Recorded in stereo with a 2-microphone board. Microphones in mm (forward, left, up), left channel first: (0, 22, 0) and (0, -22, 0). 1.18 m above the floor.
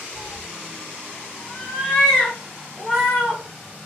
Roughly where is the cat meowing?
Left.